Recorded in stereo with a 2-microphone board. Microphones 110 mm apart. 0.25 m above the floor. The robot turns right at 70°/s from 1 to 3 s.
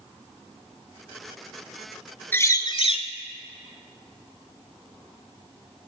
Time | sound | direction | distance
2.3 | a bird | 20° left | 0.5 m